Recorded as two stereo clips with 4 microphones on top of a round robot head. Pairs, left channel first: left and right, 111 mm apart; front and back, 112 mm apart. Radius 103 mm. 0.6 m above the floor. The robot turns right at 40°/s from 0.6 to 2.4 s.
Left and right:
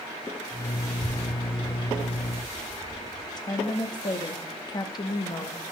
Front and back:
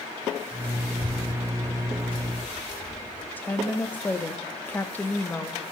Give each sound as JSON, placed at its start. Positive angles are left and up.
{"t": 0.8, "sound": "a child speaking", "azimuth_deg": -150, "distance_m": 4.5}
{"t": 3.4, "sound": "a woman speaking", "azimuth_deg": 65, "distance_m": 0.8}